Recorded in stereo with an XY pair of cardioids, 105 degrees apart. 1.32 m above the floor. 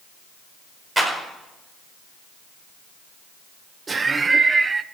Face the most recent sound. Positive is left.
turn(degrees=-30)